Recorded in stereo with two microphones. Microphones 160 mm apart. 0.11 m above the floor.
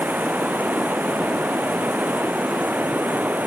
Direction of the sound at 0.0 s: 10° right (ahead or behind).